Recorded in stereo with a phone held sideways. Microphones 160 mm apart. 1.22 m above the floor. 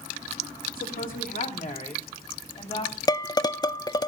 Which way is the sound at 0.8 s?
65° left (ahead or behind).